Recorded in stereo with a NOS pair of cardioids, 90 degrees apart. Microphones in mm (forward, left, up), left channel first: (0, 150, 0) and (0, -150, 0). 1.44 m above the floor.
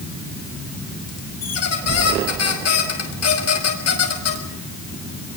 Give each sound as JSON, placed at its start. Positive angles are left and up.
{"t": 1.4, "sound": "a squeak", "azimuth_deg": 55, "distance_m": 5.5}